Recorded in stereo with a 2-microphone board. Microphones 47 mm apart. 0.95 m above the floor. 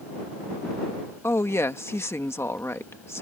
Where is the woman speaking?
60° left (ahead or behind).